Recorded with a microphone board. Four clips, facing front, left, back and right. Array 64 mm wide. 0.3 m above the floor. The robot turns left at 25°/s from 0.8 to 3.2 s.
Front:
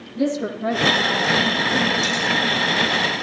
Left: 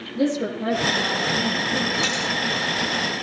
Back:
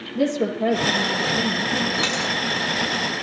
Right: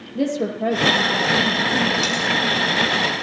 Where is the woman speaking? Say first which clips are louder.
Right 1 dB, back 1 dB; 135° right, 8 m; by 1.9 s 160° right, 8 m.